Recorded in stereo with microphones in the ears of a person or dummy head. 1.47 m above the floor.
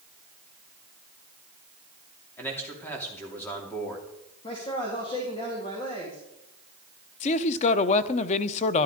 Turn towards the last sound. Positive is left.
turn(degrees=40)  # may be behind; listen again after turning